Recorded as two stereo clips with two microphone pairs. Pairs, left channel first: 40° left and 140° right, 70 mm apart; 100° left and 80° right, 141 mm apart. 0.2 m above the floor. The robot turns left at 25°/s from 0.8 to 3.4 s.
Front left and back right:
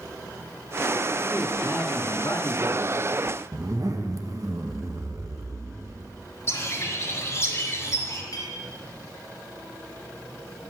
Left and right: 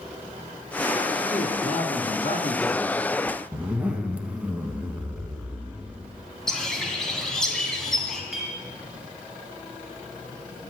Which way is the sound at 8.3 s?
5° left.